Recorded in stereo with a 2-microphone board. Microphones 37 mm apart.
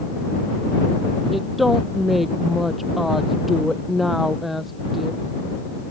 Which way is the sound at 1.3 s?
5° right (ahead or behind).